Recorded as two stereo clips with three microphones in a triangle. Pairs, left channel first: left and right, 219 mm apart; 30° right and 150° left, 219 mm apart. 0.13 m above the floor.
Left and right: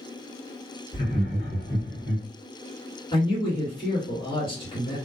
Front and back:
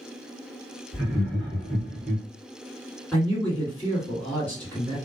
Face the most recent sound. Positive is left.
turn(degrees=45)